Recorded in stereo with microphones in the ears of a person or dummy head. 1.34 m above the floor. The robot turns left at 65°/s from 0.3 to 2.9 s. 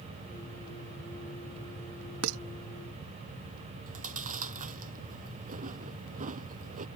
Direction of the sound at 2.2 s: 70° right (ahead or behind).